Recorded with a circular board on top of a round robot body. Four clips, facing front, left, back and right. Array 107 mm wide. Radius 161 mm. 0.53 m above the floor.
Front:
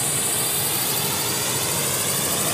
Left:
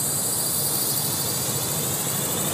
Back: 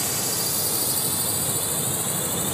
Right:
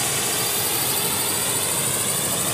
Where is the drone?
85° right; by 2.5 s 30° right.